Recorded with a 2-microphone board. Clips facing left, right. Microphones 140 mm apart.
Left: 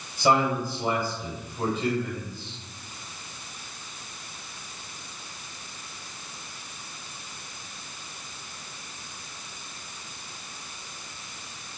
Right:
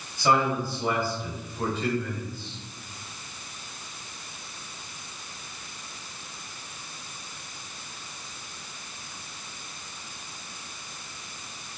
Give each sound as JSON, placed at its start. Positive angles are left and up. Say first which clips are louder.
{"t": 0.2, "sound": "a man speaking", "louder": "left 1 dB", "side_deg": 20, "distance_m": 3.5}